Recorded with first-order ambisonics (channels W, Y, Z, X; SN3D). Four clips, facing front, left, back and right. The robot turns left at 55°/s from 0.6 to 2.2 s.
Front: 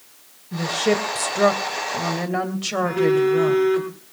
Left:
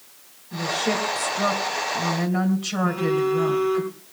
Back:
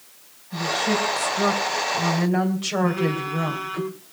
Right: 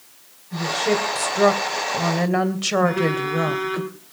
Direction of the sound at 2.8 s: 80° right.